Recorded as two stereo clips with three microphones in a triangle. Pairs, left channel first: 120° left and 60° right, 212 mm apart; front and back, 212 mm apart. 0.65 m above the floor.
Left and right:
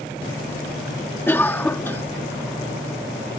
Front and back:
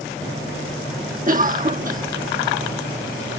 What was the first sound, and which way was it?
A cough, 165° right.